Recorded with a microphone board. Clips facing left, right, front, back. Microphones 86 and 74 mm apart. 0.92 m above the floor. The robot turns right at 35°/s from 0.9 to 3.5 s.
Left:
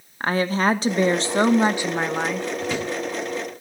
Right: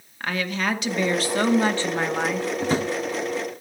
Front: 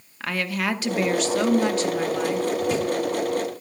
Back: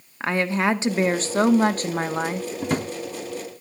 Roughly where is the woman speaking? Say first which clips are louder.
Left 5 dB, back 4 dB; behind left.